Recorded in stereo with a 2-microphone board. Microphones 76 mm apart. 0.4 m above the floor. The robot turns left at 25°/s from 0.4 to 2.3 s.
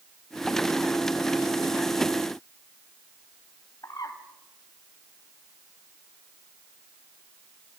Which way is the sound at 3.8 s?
60° left (ahead or behind).